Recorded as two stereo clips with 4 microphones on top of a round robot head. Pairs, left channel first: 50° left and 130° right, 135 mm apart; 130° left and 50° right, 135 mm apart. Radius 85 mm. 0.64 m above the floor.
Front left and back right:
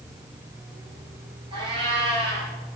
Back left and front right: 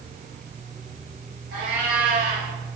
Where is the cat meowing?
70° right, 6 m.